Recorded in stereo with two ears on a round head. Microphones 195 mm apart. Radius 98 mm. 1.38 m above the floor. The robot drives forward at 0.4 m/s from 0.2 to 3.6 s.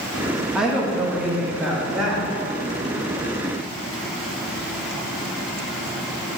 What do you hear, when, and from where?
0.6 s a woman speaking: 5° right (ahead or behind), 1.6 m; by 2.4 s centre (ahead or behind), 2.5 m